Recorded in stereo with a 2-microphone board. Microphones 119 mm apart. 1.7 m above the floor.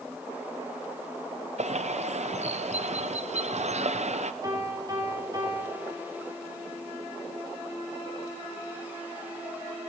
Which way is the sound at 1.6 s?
70° right (ahead or behind).